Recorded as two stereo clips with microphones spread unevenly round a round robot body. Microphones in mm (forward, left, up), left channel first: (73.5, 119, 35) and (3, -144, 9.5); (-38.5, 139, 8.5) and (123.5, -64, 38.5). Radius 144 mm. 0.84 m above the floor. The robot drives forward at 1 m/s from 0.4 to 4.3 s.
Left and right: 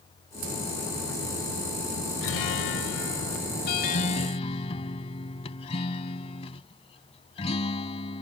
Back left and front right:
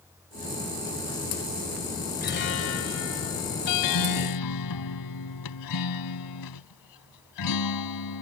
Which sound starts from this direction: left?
A guitar, at 2.2 s.